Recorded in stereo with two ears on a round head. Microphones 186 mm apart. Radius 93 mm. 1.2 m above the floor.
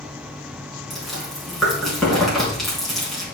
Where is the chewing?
Centre (ahead or behind), 4 m.